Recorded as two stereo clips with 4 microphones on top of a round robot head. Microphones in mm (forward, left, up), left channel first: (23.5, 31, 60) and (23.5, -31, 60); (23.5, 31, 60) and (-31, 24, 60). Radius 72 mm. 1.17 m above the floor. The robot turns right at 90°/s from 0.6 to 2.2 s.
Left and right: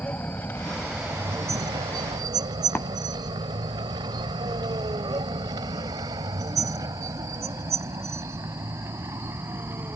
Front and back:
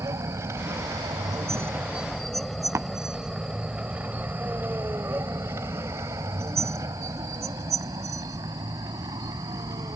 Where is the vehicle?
160° left; by 10.0 s 150° right.